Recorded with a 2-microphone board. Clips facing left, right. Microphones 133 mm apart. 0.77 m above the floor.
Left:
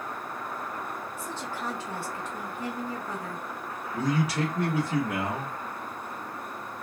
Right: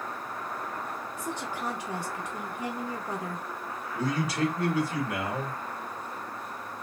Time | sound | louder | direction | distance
1.2 | a woman speaking | right 3 dB | 15° right (ahead or behind) | 0.5 m
3.9 | a man speaking | left 2 dB | 60° left (ahead or behind) | 1.3 m